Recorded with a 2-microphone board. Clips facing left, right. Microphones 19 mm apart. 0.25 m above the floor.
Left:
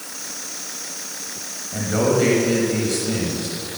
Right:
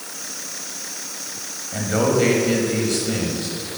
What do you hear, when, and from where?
1.7 s a man speaking: 10° right (ahead or behind), 1.5 m